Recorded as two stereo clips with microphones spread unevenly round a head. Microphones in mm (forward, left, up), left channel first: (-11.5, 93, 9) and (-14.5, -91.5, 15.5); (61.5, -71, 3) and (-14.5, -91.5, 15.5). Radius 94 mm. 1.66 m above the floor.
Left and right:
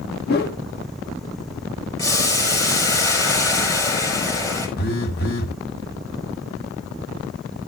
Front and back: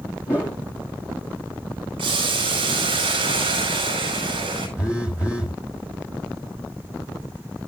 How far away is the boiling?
About 5 m.